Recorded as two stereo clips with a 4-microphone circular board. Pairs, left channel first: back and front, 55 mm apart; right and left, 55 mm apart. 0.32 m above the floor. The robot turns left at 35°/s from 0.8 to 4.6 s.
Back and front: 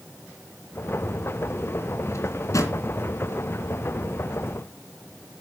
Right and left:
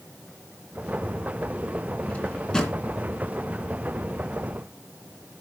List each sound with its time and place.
2.1 s a drawer: 150° right, 2.5 m; by 2.8 s 175° right, 2.5 m